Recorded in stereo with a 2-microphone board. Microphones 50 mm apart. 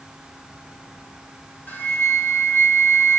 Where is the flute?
35° left (ahead or behind), 3.5 m.